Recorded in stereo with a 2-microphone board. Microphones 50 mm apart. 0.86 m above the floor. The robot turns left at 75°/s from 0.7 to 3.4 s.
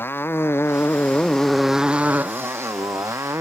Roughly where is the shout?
No shout in this recording.